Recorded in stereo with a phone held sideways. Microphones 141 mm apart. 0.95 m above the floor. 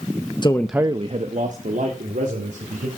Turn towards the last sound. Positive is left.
turn(degrees=-75)  # may be behind; listen again after turning